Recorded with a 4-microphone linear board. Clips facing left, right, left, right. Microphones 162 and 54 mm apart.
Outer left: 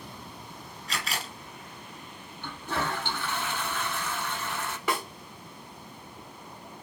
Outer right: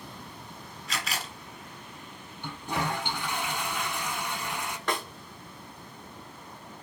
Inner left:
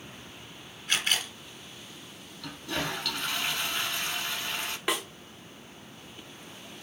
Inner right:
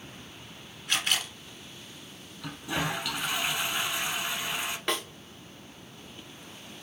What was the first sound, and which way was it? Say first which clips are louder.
A camera shutter: even, even; centre (ahead or behind).